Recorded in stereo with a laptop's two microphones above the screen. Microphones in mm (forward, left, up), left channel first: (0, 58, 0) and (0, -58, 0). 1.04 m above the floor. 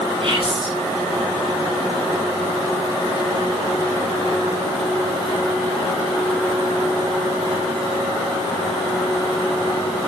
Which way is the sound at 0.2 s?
50° right (ahead or behind).